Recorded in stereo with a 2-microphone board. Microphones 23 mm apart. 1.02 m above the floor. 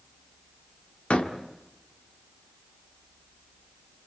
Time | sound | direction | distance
1.1 | a door slam | 70° left (ahead or behind) | 1.7 m